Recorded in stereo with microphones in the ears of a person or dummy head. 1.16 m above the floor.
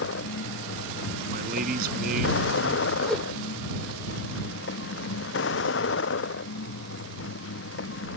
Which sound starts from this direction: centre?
A whoosh, at 3.1 s.